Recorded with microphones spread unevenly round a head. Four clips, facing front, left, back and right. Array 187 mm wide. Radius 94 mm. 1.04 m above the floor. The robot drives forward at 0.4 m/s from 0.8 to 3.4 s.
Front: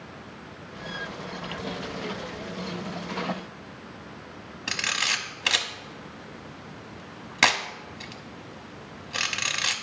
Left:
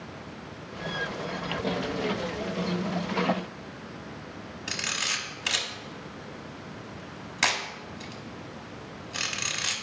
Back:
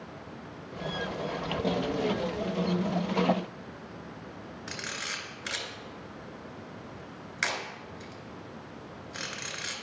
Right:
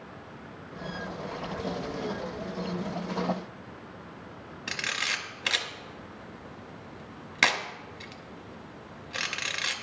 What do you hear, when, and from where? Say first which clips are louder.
4.7 s a camera shutter: right 1 dB, front 9 dB; 10° right, 1.0 m